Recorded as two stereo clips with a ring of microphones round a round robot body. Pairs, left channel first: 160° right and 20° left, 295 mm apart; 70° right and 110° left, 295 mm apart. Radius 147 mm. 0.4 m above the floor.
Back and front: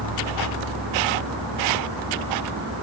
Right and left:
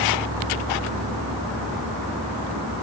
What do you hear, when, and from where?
0.0 s an insect: 50° left, 6.5 m